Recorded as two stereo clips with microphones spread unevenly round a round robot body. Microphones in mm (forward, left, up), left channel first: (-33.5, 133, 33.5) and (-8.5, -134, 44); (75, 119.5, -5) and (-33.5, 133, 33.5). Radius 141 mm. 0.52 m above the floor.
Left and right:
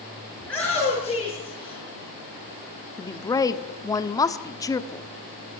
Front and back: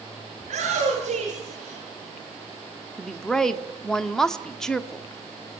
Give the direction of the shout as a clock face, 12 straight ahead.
6 o'clock.